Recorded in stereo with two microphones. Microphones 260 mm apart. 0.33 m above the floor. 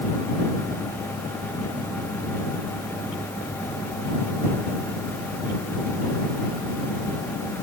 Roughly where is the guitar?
No guitar in this recording.